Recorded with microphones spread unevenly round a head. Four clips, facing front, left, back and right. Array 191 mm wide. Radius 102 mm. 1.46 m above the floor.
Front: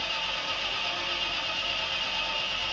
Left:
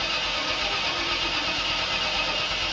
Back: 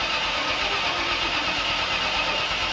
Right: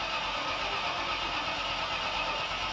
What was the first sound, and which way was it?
An engine running, 155° left.